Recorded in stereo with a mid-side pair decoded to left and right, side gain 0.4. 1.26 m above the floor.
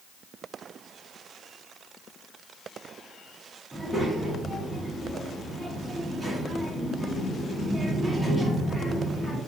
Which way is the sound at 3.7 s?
10° right.